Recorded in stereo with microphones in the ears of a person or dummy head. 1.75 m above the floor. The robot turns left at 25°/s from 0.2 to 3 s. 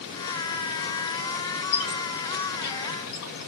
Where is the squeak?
60° left (ahead or behind), 1.6 m; by 3.5 s 55° left (ahead or behind), 1.6 m.